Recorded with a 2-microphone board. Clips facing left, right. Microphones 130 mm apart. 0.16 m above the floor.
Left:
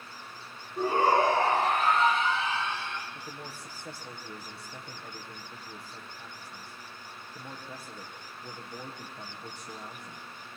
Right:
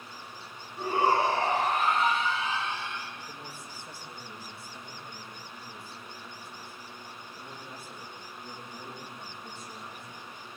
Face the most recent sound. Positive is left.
turn(degrees=65)  # may be behind; listen again after turning